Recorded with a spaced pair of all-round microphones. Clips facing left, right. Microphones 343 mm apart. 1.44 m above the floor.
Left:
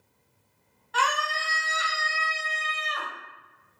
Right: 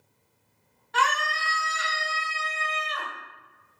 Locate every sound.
0.9 s a scream: 30° right (ahead or behind), 1.0 m; by 3.1 s 65° left (ahead or behind), 0.9 m